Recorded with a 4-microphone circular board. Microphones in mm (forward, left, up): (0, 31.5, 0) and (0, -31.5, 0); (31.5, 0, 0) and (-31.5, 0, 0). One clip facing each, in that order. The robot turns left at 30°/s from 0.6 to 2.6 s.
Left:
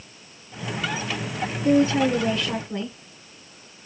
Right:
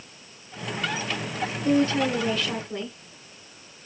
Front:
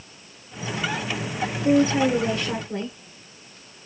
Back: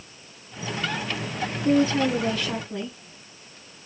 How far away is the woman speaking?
About 1.2 m.